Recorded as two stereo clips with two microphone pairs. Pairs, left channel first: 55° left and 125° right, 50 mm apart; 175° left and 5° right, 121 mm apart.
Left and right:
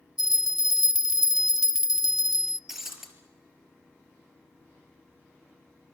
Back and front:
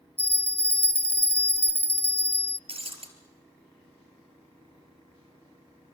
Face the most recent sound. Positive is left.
turn(degrees=-40)